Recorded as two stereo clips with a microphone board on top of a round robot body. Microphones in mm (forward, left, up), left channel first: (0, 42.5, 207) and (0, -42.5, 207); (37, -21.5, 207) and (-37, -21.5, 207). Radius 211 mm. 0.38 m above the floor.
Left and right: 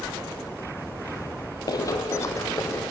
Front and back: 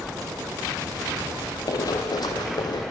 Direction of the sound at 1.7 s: 45° left.